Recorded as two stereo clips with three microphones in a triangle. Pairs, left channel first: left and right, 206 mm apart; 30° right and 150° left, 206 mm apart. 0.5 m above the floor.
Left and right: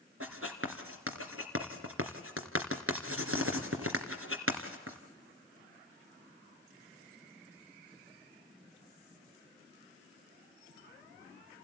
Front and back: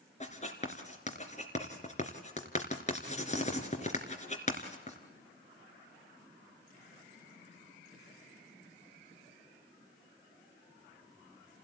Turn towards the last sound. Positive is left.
turn(degrees=-90)